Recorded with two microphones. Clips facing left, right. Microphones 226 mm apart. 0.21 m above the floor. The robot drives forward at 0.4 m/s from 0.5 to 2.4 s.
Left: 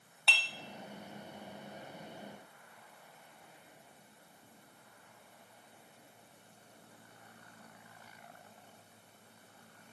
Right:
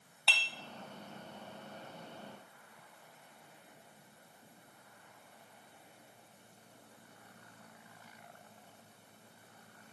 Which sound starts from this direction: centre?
Dishes clattering, at 0.3 s.